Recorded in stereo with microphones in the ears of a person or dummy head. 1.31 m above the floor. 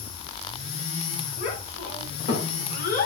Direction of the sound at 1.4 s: 50° left (ahead or behind).